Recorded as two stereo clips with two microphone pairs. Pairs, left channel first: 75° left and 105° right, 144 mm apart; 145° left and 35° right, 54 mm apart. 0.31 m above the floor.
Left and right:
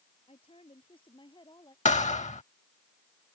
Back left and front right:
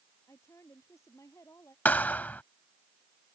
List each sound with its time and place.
0.3 s a woman speaking: 120° left; by 1.8 s 130° left
1.9 s a thud: 90° left